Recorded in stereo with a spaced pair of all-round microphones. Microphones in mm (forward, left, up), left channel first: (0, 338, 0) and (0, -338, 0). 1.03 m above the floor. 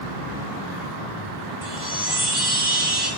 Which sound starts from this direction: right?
A chime, at 1.6 s.